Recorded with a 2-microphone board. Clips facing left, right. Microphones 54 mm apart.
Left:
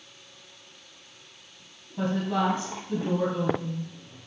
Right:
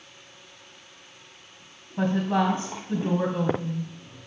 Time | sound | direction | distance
2.0 | a woman speaking | 30° right (ahead or behind) | 1.3 m